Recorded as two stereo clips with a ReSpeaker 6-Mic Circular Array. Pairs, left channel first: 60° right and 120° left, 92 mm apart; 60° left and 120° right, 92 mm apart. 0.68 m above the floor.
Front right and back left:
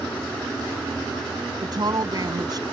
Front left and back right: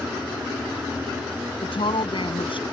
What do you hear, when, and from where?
1.6 s a woman speaking: 80° left